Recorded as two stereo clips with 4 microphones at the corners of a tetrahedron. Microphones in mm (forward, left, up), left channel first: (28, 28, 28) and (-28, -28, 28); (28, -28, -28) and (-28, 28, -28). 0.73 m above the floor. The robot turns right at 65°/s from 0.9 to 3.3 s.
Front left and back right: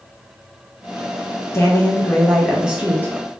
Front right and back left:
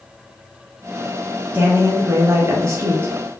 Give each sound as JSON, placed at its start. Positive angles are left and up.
{"t": 1.5, "sound": "a woman speaking", "azimuth_deg": 75, "distance_m": 0.7}